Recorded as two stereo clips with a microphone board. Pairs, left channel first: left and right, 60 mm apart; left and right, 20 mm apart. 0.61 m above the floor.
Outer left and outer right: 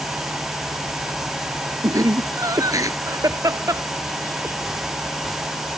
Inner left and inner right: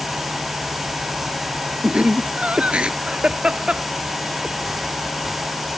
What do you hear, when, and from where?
1.8 s laughter: 75° right (ahead or behind); by 4.5 s 65° right (ahead or behind)